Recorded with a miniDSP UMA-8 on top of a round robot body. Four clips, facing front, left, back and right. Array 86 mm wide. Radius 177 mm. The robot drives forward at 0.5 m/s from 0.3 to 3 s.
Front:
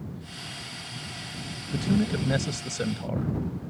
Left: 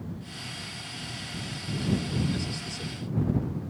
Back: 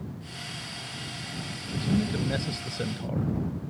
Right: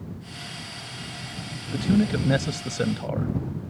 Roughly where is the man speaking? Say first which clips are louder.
Right 7 dB, front 2 dB; right.